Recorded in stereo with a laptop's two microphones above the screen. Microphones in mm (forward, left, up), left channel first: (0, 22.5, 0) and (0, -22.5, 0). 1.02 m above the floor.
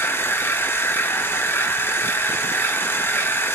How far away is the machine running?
About 0.8 m.